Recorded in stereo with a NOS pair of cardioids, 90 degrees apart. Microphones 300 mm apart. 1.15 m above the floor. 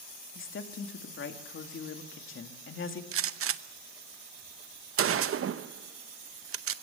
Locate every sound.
0.3 s a woman speaking: 45° left, 2 m
3.1 s a gunshot: 45° right, 0.8 m